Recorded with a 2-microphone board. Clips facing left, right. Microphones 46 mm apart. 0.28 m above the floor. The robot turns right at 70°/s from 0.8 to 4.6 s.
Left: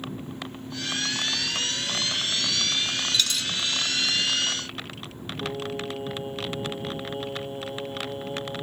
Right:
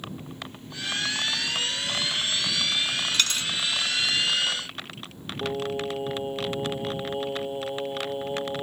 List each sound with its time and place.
3.1 s a dropped coin: 55° right (ahead or behind); by 3.5 s 30° right (ahead or behind)
5.4 s singing: 20° right (ahead or behind)